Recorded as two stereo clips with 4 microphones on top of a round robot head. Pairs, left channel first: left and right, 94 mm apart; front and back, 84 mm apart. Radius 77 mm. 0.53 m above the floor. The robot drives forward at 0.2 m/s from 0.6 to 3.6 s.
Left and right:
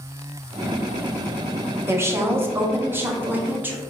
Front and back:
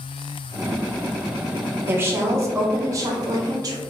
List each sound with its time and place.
1.9 s a woman speaking: 135° right, 0.8 m; by 3.8 s 155° right, 1.0 m